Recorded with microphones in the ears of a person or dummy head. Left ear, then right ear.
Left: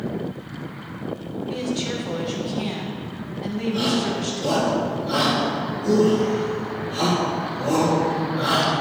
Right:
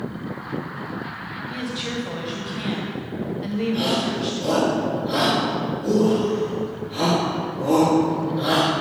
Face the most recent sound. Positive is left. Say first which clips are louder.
# left 1 dB
turn(degrees=-5)  # may be behind; listen again after turning